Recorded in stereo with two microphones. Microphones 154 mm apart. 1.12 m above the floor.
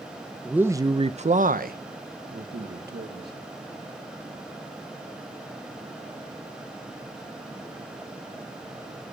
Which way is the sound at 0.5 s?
5° right (ahead or behind).